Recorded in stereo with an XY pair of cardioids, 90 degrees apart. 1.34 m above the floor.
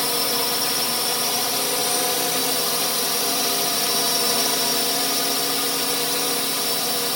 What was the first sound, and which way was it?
A drone, 10° left.